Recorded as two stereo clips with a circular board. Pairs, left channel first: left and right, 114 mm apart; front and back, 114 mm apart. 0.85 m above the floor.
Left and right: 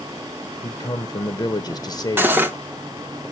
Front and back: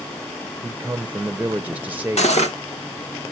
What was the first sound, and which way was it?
A man speaking, 115° left.